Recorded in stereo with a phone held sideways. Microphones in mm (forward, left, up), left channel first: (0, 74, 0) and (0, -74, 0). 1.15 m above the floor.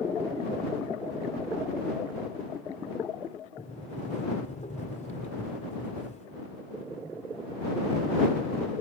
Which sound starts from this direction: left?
A sliding door, at 3.6 s.